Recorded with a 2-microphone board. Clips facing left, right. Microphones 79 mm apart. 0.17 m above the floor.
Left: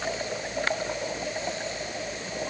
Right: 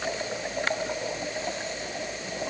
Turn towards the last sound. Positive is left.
No sound to turn to.